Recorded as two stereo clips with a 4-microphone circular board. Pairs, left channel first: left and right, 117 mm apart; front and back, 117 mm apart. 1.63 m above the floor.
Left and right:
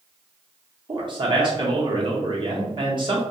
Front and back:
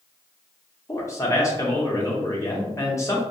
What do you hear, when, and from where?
0.9 s a man speaking: 55° right, 0.6 m